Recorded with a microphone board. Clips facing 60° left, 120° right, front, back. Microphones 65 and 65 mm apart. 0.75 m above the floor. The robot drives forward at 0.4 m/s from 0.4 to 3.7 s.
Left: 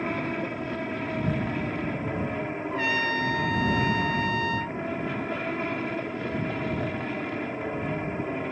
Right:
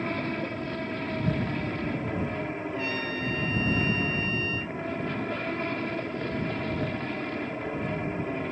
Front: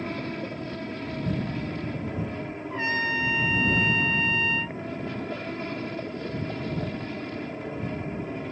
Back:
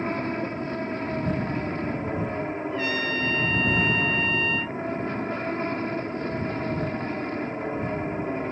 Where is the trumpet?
55° left; by 4.8 s 90° left.